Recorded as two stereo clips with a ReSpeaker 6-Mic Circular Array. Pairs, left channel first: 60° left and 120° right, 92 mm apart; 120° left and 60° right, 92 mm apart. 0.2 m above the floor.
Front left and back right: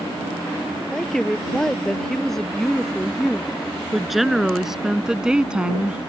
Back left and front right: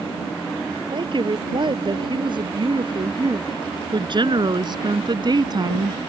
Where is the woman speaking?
25° right; by 6.0 s 50° right.